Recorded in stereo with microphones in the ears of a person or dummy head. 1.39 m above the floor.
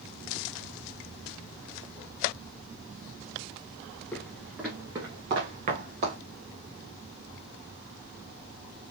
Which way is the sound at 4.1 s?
5° left (ahead or behind).